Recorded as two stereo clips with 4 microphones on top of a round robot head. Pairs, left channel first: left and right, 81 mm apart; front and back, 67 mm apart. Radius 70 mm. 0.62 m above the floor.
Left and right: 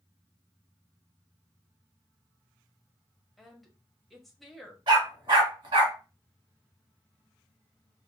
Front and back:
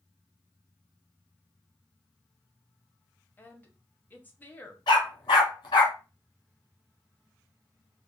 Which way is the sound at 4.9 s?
45° right.